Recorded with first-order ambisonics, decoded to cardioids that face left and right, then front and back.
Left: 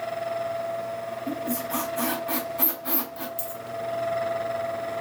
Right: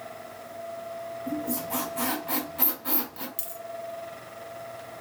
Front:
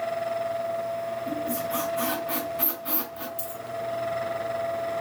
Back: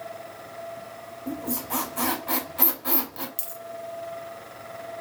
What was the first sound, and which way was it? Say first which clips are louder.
A squeak: left 1 dB, front 4 dB; 175° right.